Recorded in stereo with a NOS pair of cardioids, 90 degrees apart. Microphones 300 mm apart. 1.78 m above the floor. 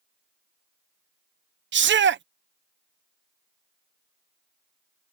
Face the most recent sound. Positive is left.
turn(degrees=-40)